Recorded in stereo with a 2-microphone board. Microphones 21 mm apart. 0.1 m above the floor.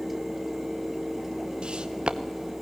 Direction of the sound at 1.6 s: 45° right (ahead or behind).